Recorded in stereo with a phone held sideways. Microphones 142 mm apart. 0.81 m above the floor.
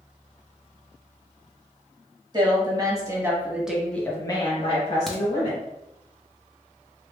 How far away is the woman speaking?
About 1.5 m.